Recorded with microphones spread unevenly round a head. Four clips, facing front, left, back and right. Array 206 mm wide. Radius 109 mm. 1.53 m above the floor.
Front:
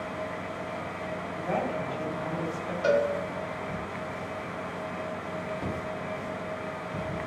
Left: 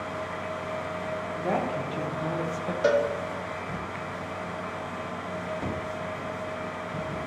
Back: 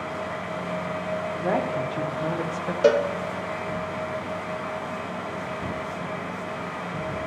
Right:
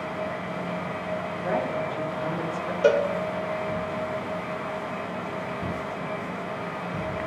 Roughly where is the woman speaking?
Behind.